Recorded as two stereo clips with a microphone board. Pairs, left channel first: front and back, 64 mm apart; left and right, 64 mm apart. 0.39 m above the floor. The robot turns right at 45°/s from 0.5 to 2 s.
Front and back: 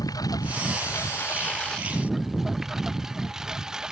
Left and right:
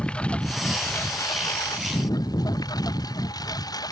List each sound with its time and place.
0.0 s a lawn mower: 20° left; by 3.9 s 100° left